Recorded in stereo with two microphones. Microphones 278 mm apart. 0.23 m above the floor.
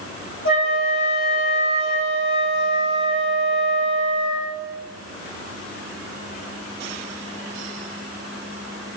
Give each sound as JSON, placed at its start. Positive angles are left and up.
{"t": 0.5, "sound": "a flute", "side_deg": 45, "distance_m": 6.5}